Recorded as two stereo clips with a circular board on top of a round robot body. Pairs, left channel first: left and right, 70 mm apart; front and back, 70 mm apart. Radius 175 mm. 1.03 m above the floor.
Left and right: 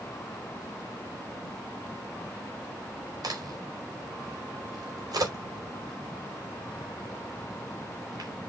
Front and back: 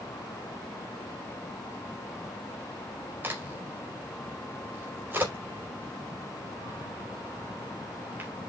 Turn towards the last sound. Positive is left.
turn(degrees=-115)